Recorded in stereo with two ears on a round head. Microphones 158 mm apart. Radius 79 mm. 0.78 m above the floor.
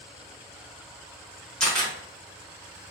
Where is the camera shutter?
5° left (ahead or behind), 1.2 m.